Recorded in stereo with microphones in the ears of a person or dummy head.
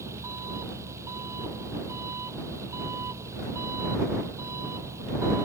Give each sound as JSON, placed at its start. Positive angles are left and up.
{"t": 0.0, "sound": "an engine running", "side_deg": -20}